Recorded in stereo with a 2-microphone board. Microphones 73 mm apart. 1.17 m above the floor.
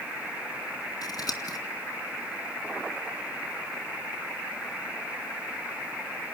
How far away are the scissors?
About 2.5 m.